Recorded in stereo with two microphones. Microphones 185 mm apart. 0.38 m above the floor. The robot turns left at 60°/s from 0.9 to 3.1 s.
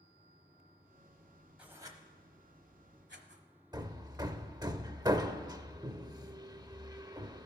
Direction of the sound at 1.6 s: 5° right (ahead or behind).